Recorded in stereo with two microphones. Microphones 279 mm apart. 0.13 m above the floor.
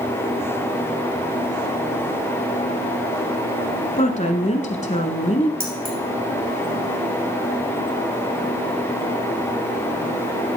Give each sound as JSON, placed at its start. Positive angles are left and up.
{"t": 4.0, "sound": "a woman speaking", "side_deg": 25, "distance_m": 1.1}
{"t": 5.6, "sound": "keys jangling", "side_deg": -45, "distance_m": 2.5}